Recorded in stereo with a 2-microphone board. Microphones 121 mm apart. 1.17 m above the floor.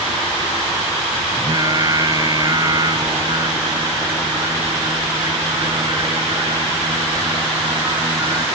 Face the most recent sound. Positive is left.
turn(degrees=-35)  # may be behind; listen again after turning